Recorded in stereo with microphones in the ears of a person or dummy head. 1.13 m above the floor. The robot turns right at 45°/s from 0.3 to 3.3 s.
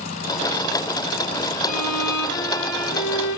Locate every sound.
1.6 s a violin: 40° left, 1.9 m; by 3.4 s 115° left, 1.9 m